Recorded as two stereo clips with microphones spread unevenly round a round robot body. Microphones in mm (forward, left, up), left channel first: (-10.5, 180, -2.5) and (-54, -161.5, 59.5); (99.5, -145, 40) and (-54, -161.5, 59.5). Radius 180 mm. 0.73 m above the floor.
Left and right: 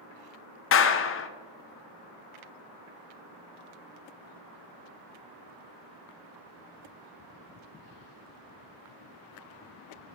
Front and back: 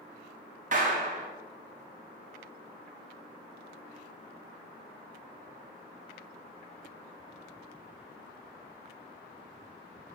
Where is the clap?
130° left, 0.8 m.